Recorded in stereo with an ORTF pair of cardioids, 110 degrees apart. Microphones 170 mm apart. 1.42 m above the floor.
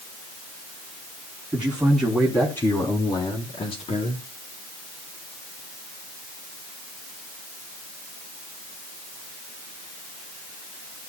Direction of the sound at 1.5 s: 10° right.